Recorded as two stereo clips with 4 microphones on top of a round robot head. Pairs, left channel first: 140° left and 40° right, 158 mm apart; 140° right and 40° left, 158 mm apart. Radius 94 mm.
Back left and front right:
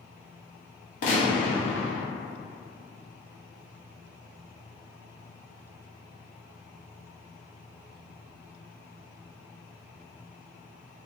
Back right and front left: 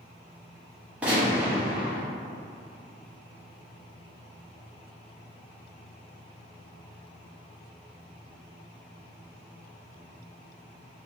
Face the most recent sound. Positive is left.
turn(degrees=120)